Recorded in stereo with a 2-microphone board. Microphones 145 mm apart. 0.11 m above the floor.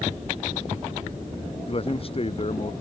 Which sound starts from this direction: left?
A man speaking, at 1.7 s.